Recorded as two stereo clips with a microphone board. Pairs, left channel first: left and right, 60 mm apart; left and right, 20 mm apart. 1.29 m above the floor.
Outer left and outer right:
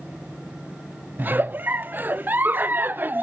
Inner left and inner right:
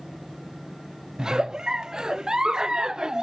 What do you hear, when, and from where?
1.2 s a giggle: 35° right (ahead or behind), 0.5 m